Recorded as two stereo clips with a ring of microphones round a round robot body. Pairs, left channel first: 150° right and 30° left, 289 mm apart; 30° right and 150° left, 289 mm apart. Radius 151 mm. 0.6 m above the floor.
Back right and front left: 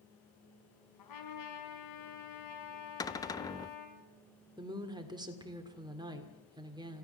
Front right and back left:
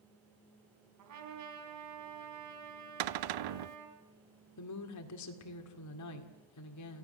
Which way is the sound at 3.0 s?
130° left.